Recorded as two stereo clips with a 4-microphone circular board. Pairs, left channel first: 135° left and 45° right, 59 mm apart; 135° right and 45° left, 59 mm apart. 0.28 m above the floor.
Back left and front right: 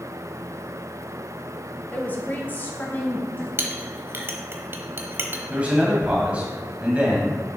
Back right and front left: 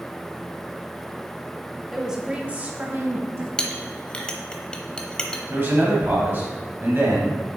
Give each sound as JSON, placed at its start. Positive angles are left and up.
{"t": 1.9, "sound": "a woman speaking", "azimuth_deg": 130, "distance_m": 1.2}
{"t": 3.6, "sound": "a clink", "azimuth_deg": -70, "distance_m": 0.8}
{"t": 5.5, "sound": "a man speaking", "azimuth_deg": 10, "distance_m": 1.3}